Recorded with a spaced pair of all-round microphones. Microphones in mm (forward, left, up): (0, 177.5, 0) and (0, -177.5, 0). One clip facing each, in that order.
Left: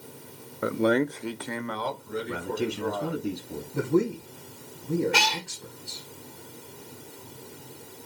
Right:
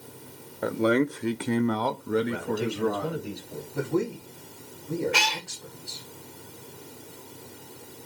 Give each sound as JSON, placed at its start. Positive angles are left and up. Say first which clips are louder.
{"t": 0.6, "sound": "a man speaking", "louder": "even", "side_deg": 10, "distance_m": 0.8}
{"t": 2.3, "sound": "a man speaking", "louder": "right 1 dB", "side_deg": 65, "distance_m": 2.0}
{"t": 3.7, "sound": "a man speaking", "louder": "left 3 dB", "side_deg": 25, "distance_m": 1.7}
{"t": 5.1, "sound": "a cat meowing", "louder": "left 2 dB", "side_deg": 50, "distance_m": 1.0}